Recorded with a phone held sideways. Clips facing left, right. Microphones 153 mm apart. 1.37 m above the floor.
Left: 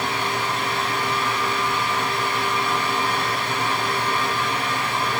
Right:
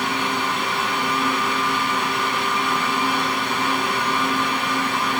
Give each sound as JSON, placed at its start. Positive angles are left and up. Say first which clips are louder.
{"t": 0.0, "sound": "a fan", "louder": "right 1 dB", "side_deg": -15, "distance_m": 7.0}